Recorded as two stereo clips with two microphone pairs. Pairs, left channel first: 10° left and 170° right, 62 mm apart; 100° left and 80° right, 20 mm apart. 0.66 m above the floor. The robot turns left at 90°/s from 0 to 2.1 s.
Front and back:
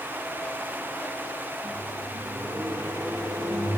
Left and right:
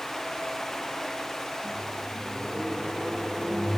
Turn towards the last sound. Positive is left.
turn(degrees=-160)